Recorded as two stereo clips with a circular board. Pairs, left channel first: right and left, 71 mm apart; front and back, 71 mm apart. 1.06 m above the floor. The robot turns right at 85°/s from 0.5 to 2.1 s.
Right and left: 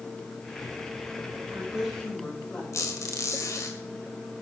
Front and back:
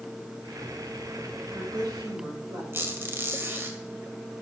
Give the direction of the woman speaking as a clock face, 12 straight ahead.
7 o'clock.